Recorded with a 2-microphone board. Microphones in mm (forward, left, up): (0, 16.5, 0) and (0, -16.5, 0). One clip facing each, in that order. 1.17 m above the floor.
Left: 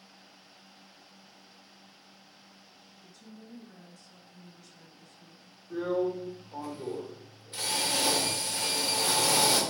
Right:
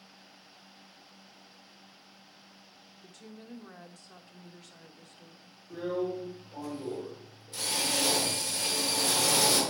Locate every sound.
3.0 s a woman speaking: 65° right (ahead or behind), 0.9 m
5.7 s a drill: 40° left (ahead or behind), 3 m